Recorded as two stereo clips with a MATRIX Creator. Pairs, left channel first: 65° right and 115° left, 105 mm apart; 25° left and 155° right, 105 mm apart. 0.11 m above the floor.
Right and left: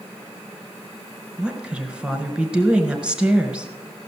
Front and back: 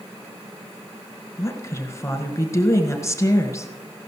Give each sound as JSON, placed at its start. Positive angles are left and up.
{"t": 1.4, "sound": "a woman speaking", "azimuth_deg": 45, "distance_m": 1.7}